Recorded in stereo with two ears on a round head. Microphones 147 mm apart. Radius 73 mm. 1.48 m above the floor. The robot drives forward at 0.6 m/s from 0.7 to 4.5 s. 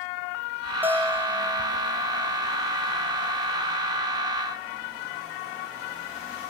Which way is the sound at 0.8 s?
10° right (ahead or behind).